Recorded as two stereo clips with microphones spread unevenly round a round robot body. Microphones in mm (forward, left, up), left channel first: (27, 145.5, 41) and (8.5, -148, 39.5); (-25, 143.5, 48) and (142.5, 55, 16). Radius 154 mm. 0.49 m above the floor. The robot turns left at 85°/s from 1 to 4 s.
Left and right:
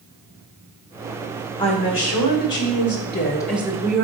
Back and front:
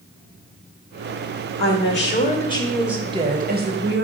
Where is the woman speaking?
160° left, 1.9 m; by 4.1 s 45° right, 1.9 m.